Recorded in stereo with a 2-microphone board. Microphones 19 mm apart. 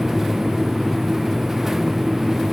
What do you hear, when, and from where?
Only background noise.